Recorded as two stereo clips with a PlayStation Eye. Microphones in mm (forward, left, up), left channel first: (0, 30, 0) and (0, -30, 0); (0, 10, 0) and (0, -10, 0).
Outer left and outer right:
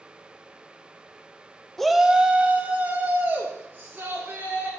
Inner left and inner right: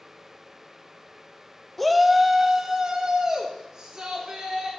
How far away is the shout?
About 0.5 m.